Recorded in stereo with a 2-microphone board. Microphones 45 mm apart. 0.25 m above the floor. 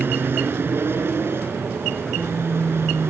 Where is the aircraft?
55° right (ahead or behind); by 3.1 s 60° right (ahead or behind).